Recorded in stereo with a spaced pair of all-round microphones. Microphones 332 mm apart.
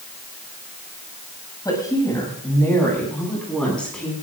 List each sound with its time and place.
1.6 s a woman speaking: 10° left (ahead or behind), 7.5 m; by 4.1 s centre (ahead or behind), 10.5 m